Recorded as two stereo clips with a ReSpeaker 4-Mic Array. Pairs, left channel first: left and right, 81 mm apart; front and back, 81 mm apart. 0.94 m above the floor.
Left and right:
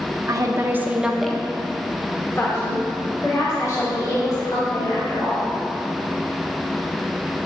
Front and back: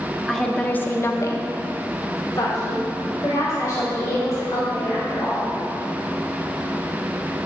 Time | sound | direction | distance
0.3 | a woman speaking | 85° right | 0.8 m